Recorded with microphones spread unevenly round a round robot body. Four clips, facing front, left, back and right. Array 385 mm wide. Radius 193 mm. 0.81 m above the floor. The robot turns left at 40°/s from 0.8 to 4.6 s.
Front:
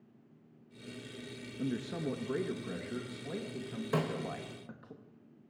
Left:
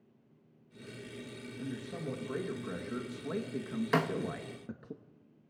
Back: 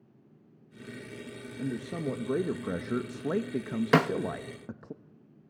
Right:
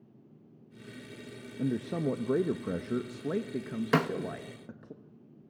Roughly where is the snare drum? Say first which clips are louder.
Right 3 dB, back 10 dB; behind.